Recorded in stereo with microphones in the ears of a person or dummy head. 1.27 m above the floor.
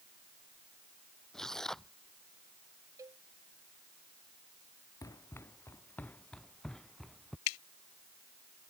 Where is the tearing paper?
Centre (ahead or behind).